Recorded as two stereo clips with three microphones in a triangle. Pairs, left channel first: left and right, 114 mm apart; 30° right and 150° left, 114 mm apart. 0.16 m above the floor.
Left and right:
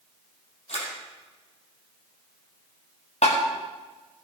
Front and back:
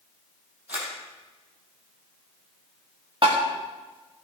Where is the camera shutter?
75° left, 5 m.